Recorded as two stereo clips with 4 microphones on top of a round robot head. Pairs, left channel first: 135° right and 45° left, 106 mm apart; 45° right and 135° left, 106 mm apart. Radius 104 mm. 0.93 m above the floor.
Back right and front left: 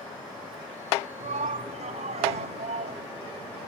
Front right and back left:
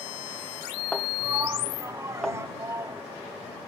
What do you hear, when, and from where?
1.2 s a shout: 65° left